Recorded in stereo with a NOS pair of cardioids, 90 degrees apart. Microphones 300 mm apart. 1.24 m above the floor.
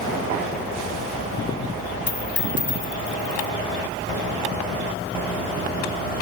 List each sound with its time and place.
2.1 s a dropped coin: 40° left